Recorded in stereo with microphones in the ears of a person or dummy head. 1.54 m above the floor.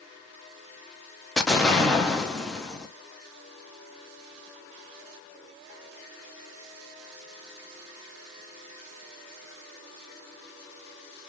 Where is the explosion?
Centre (ahead or behind), 0.6 m.